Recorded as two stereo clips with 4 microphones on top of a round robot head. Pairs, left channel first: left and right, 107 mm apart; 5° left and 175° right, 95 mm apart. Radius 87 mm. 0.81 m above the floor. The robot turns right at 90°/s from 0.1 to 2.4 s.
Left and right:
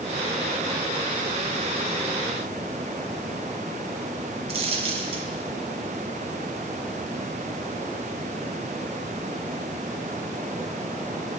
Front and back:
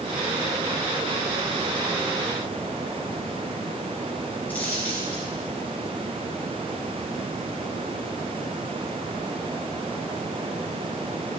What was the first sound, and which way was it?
A dropped coin, 80° right.